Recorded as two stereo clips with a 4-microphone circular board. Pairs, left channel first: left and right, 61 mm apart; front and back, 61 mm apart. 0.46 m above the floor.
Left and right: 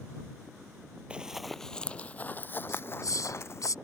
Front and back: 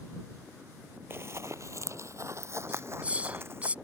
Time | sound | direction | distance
1.1 | running footsteps | 155° right | ?
2.7 | a hiss | 115° left | ?